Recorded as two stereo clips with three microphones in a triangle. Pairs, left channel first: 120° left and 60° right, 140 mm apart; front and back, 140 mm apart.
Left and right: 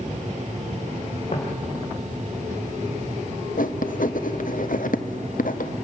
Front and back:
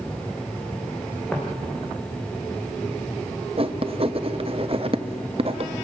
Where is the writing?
130° left, 0.7 m.